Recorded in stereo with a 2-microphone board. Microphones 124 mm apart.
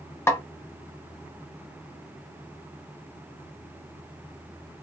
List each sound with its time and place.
0.3 s a snare drum: 20° left (ahead or behind), 0.7 m